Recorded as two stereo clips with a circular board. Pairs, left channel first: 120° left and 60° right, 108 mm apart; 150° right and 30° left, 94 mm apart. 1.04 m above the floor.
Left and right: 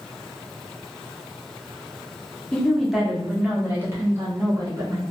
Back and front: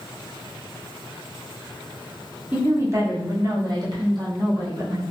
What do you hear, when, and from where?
2.5 s a woman speaking: 60° left, 0.6 m; by 5.0 s 5° right, 1.5 m